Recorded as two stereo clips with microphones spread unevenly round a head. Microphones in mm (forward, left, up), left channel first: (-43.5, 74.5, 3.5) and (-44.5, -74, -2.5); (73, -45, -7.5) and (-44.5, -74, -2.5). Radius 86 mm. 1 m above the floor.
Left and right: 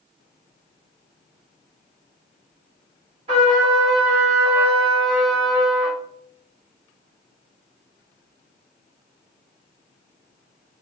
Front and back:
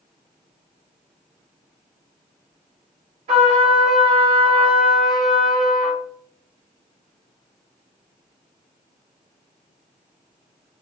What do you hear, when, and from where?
3.3 s a trumpet: 140° right, 1.6 m